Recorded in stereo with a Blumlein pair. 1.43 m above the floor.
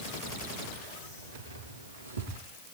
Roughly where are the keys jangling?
Ahead right.